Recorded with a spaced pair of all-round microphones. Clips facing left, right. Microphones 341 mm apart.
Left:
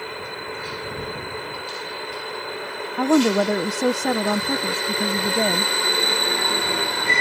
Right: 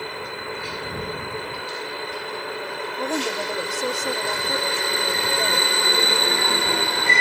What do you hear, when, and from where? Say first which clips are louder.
3.0 s a woman speaking: left 11 dB; 70° left (ahead or behind)